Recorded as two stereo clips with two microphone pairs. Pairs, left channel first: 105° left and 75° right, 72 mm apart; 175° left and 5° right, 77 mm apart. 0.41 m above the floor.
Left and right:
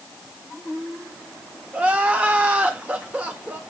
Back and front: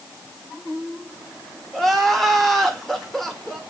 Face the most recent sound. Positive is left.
turn(degrees=-100)